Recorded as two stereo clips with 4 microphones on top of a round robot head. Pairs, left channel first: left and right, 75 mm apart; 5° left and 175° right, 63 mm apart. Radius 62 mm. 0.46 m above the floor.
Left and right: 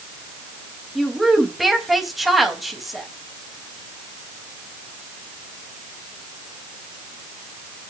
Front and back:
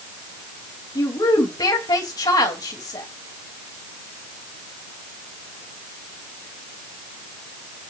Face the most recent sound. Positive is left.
turn(degrees=0)